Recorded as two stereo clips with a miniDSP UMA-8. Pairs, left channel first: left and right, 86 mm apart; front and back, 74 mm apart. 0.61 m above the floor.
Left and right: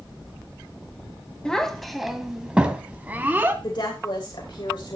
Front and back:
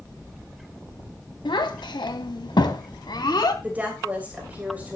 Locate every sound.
1.4 s a child speaking: 10° left, 2.0 m; by 3.5 s 25° right, 2.5 m
3.6 s a woman speaking: 115° left, 3 m